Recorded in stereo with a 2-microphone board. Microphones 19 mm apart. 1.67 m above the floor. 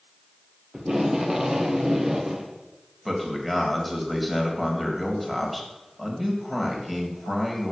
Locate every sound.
0.7 s tape being pulled: 35° right (ahead or behind), 1.5 m
3.0 s a man speaking: 5° right (ahead or behind), 2.5 m